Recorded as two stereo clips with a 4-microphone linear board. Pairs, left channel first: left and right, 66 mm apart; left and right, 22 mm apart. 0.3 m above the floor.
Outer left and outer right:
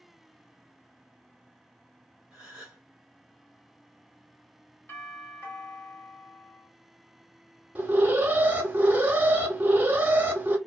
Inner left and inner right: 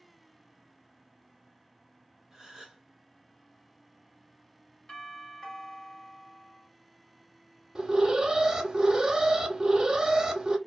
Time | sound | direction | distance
2.3 | a gasp | 15° right (ahead or behind) | 1.3 m
4.9 | a doorbell | 35° left (ahead or behind) | 1.5 m
7.8 | an alarm | 25° right (ahead or behind) | 0.7 m